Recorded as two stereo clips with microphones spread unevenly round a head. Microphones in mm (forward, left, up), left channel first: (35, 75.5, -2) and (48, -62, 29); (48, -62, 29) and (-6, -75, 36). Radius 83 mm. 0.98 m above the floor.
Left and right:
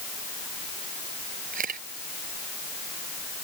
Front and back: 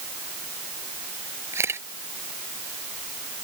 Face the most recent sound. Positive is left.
turn(degrees=-130)